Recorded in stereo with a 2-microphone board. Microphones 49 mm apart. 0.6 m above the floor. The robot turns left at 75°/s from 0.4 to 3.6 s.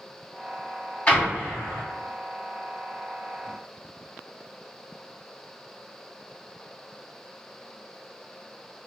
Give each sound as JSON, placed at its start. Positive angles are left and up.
{"t": 1.1, "sound": "an explosion", "azimuth_deg": 155, "distance_m": 1.8}